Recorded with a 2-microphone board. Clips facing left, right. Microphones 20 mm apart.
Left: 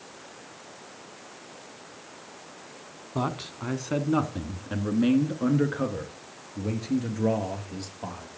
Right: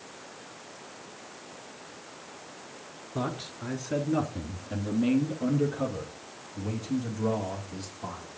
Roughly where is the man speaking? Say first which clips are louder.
Left 3 dB; left.